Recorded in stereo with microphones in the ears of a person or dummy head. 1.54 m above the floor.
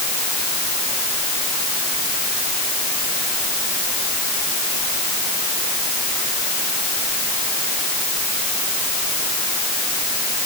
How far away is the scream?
No scream in this recording.